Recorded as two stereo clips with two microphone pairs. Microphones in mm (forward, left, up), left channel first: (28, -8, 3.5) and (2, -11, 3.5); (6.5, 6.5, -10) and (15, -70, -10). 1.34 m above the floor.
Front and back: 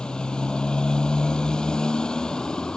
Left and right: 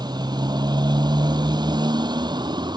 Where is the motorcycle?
50° right; by 2.8 s 55° right.